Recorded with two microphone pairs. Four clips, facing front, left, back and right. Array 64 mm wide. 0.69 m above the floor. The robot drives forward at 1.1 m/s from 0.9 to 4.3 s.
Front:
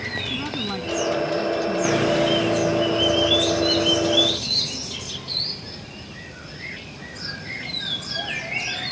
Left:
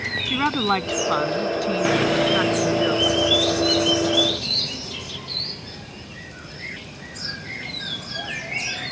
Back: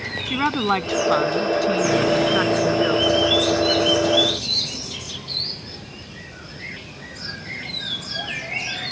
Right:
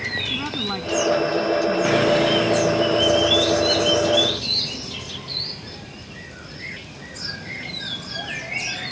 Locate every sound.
0.3 s a woman speaking: 145° left; by 3.3 s 150° left